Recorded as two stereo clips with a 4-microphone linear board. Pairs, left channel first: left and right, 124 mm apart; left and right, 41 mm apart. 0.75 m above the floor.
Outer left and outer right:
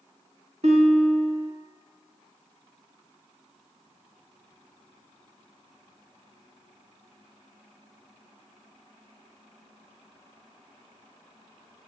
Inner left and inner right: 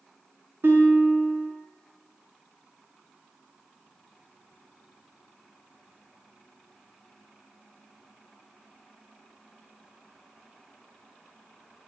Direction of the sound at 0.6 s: 70° right (ahead or behind).